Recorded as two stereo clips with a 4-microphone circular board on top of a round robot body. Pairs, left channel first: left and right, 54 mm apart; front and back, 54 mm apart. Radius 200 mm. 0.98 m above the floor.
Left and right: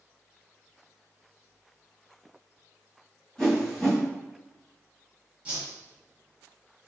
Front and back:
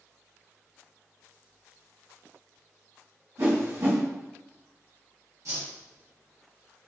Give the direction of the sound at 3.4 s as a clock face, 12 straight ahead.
6 o'clock.